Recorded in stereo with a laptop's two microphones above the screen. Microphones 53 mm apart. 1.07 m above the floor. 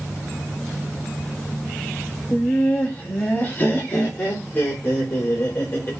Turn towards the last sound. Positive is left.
turn(degrees=35)  # may be behind; listen again after turning